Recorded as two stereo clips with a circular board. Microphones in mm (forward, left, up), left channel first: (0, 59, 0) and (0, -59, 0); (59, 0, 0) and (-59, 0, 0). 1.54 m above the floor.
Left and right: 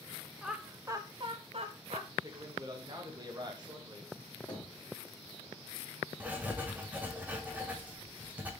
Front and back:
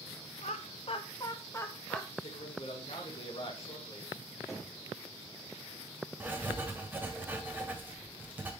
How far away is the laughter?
About 0.7 m.